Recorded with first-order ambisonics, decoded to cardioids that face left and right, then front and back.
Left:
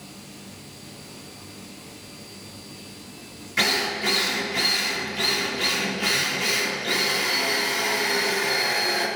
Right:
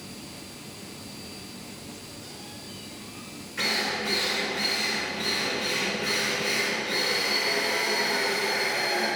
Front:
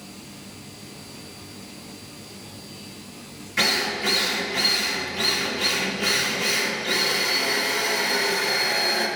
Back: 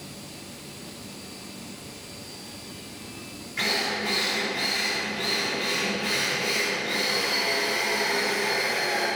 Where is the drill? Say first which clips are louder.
Left 4 dB, front 4 dB; 60° left, 2.5 m.